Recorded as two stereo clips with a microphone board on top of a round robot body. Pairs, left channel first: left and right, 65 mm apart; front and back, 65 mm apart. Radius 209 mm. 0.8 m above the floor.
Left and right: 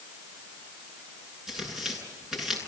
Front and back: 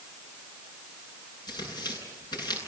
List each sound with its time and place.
1.5 s tearing paper: 5° right, 10 m